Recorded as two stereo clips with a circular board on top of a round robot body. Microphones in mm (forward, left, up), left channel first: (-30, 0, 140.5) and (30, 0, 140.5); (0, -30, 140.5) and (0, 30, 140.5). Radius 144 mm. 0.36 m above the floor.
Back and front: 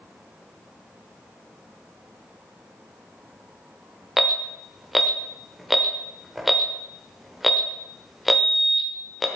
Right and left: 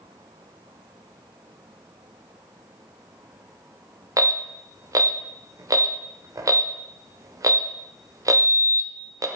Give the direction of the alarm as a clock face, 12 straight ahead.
9 o'clock.